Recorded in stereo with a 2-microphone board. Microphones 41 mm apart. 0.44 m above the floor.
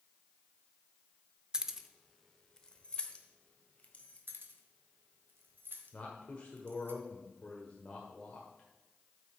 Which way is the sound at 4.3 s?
65° right (ahead or behind).